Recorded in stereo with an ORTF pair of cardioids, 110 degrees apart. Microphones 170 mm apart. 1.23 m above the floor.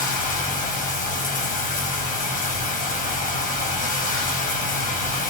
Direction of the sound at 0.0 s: 50° left.